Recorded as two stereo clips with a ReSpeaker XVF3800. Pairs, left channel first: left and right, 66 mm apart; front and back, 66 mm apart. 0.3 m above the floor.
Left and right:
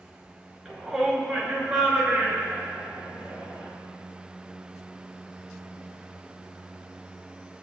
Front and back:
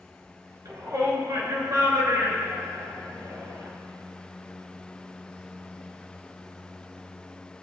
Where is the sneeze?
No sneeze in this recording.